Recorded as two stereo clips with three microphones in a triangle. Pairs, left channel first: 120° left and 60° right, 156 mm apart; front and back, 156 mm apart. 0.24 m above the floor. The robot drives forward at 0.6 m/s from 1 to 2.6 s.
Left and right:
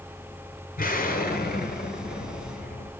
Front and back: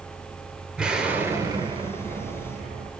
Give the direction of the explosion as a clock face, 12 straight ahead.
9 o'clock.